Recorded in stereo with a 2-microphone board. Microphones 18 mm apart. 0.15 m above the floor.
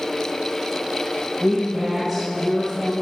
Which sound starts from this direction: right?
A woman speaking, at 1.4 s.